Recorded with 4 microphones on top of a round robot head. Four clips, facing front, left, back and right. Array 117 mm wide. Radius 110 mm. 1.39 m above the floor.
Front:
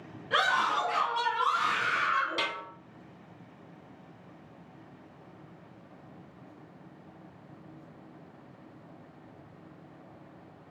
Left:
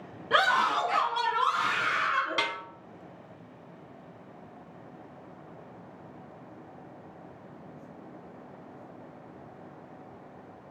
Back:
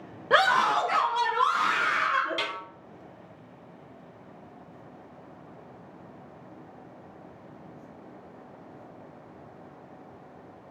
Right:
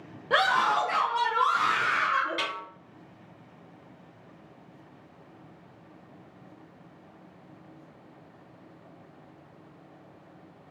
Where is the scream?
170° right, 1.2 m; by 2.4 s 135° right, 3.5 m.